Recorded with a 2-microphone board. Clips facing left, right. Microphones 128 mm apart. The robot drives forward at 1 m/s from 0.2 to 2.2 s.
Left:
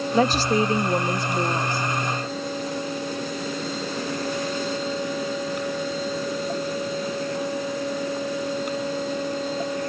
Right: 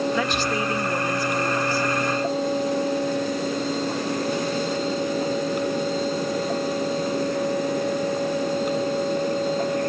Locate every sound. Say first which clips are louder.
0.1 s a woman speaking: left 4 dB; 40° left (ahead or behind); by 1.9 s 20° left (ahead or behind)